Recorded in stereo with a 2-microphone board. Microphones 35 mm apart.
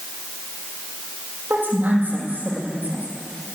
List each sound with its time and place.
1.5 s a woman speaking: 45° right (ahead or behind), 8.5 m